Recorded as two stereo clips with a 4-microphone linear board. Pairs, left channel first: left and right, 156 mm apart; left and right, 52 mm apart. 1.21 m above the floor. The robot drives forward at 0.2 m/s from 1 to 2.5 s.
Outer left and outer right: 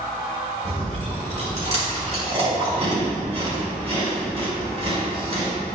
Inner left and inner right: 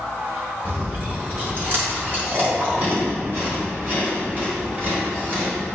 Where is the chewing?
45° right (ahead or behind), 3.5 m; by 5.5 s 40° right (ahead or behind), 3.5 m.